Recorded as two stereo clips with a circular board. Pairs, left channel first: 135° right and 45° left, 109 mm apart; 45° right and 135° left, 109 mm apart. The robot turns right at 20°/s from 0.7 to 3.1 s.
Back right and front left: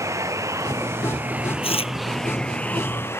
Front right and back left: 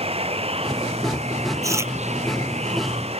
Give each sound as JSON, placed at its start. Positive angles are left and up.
{"t": 0.0, "sound": "running water", "azimuth_deg": 110}
{"t": 1.6, "sound": "chewing", "azimuth_deg": -165}